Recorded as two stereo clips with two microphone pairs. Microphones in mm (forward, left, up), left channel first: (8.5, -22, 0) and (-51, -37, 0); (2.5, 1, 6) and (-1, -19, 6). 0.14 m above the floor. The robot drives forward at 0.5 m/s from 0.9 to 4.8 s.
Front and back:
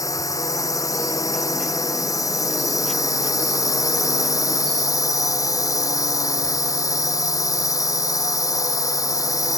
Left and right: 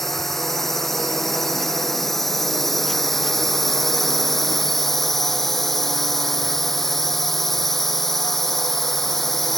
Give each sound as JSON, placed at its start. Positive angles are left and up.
{"t": 0.0, "sound": "a drone", "azimuth_deg": 0}